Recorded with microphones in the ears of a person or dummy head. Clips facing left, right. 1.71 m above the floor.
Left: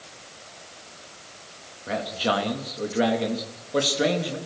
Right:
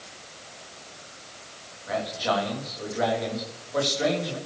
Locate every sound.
1.9 s a man speaking: 40° left (ahead or behind), 3.5 m